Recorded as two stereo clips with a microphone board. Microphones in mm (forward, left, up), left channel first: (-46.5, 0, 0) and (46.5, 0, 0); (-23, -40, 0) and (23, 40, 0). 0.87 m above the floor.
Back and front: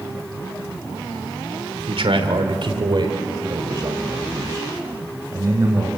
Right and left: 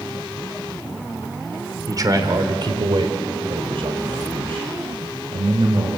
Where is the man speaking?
10° left, 2.5 m; by 5.9 s 60° left, 5 m.